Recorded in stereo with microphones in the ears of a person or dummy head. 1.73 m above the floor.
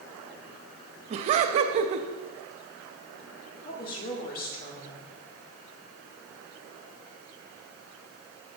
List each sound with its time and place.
1.1 s laughter: 40° right (ahead or behind), 0.7 m
3.6 s a woman speaking: 50° left (ahead or behind), 2 m